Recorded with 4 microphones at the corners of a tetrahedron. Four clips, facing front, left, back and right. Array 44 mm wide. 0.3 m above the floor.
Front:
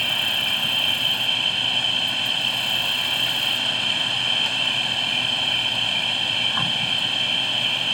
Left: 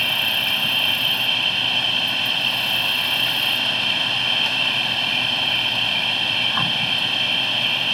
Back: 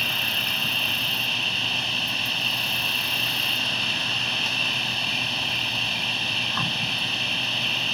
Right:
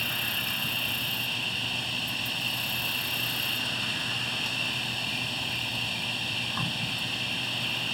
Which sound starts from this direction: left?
An insect, at 0.0 s.